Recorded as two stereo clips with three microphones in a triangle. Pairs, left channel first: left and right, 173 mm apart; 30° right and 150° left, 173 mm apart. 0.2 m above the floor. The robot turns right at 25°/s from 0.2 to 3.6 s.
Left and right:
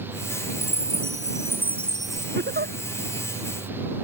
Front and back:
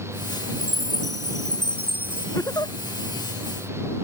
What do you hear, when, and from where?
0.6 s a chime: 145° left; by 2.2 s 175° right
2.4 s a giggle: 105° right; by 2.8 s 95° right